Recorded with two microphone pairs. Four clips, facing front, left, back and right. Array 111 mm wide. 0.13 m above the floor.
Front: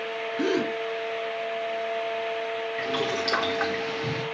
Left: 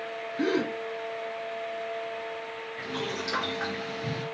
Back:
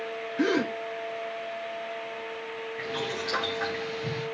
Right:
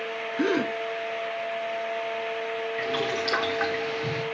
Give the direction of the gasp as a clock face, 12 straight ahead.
4 o'clock.